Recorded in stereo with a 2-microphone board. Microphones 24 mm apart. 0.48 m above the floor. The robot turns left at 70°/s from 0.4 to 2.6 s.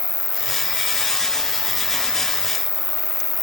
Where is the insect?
90° left, 2.5 m; by 3.4 s 60° right, 2.5 m.